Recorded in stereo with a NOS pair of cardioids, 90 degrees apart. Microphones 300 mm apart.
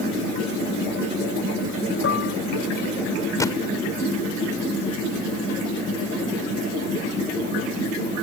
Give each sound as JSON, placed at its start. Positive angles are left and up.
{"t": 2.0, "sound": "dishes clattering", "azimuth_deg": 45}
{"t": 3.4, "sound": "a gunshot", "azimuth_deg": 10}